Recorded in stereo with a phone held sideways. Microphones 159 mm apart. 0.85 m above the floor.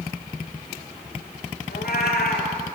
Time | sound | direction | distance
1.7 | a cat meowing | 80° left | 5 m